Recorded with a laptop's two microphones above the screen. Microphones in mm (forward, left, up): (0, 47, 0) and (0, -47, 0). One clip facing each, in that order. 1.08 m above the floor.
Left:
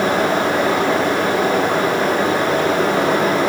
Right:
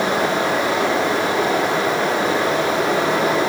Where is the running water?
45° left (ahead or behind), 7 m.